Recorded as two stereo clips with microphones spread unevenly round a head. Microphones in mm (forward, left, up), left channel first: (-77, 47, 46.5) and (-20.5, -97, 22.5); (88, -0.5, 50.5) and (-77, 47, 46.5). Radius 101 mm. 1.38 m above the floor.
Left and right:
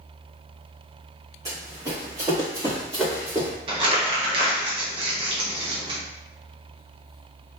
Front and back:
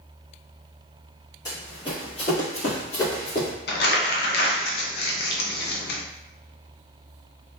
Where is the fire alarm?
I don't hear a fire alarm.